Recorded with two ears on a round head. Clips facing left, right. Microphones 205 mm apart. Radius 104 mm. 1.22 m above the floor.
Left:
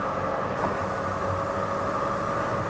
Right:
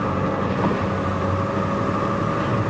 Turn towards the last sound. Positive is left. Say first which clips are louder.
# right 6 dB
turn(degrees=-45)  # may be behind; listen again after turning